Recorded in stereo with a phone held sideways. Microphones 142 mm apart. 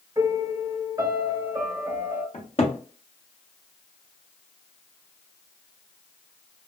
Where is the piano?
20° right (ahead or behind), 1.5 m.